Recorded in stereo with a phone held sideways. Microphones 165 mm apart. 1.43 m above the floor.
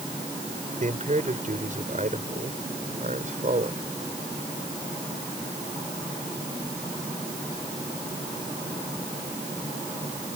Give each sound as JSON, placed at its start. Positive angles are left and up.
{"t": 0.8, "sound": "a man speaking", "side_deg": -50}